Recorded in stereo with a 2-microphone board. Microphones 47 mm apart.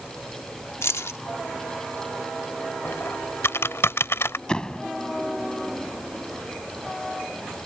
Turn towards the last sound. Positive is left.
turn(degrees=15)  # may be behind; listen again after turning